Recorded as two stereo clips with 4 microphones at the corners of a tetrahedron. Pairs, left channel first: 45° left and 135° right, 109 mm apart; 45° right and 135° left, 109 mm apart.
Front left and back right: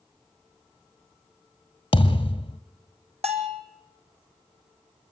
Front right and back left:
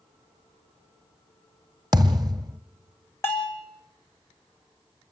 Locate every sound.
1.9 s a thud: 85° left, 1.5 m
3.2 s a bell: 115° right, 3 m